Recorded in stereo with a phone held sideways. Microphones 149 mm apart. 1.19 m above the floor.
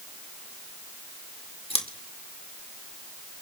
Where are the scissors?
40° left (ahead or behind), 2.5 m.